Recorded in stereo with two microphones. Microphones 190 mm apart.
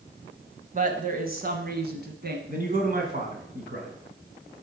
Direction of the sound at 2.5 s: 45° right (ahead or behind).